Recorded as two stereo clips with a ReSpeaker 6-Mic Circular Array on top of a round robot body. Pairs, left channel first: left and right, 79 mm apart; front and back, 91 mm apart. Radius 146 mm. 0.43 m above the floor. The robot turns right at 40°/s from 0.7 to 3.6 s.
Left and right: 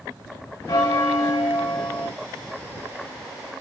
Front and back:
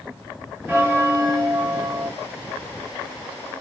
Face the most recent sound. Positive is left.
turn(degrees=-130)